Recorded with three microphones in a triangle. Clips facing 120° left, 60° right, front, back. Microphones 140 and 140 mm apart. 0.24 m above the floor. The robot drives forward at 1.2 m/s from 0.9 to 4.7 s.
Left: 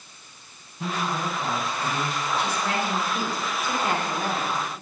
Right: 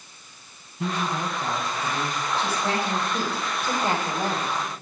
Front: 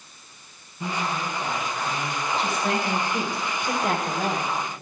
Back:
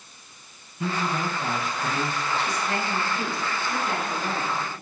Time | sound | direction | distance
0.8 | a woman speaking | 115° right | 1.5 m
2.4 | a woman speaking | straight ahead | 8.5 m